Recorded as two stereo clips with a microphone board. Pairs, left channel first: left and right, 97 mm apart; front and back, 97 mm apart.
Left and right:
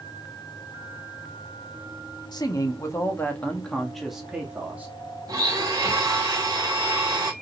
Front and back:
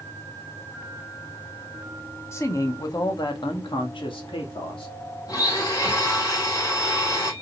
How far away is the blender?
About 2.5 m.